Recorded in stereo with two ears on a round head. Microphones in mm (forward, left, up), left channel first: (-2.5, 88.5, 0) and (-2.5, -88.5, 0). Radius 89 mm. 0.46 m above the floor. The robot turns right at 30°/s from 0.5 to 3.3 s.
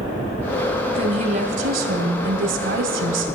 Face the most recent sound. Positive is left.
turn(degrees=-80)